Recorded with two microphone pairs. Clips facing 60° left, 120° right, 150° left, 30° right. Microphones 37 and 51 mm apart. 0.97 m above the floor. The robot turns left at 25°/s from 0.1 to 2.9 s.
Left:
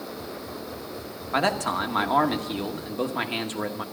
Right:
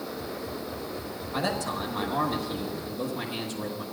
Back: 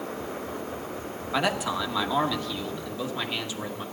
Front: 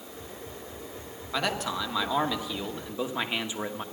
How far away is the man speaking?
About 1.2 m.